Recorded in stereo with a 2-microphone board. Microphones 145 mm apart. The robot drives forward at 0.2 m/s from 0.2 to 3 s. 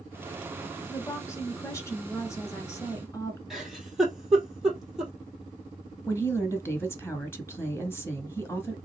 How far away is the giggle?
About 1.8 m.